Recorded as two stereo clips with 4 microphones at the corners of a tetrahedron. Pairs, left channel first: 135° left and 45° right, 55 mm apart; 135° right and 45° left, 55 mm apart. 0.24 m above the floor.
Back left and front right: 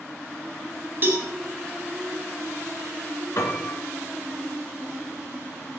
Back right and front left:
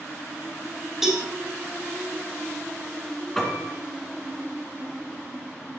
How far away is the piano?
About 2.5 m.